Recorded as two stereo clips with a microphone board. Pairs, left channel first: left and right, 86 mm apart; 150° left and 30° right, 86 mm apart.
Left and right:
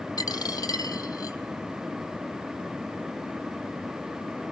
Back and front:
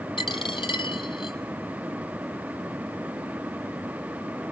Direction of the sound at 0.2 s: 130° left.